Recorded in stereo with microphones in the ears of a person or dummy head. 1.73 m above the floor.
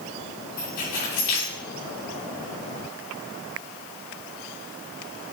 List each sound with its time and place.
0.6 s keys jangling: 70° left (ahead or behind), 3 m